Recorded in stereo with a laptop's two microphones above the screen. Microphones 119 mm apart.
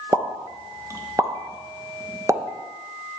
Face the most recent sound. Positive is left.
turn(degrees=-25)  # may be behind; listen again after turning